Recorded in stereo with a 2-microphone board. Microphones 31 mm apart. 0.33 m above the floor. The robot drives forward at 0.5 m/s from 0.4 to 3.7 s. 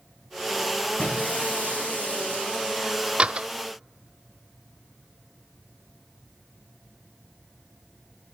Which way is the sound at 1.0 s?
60° left (ahead or behind).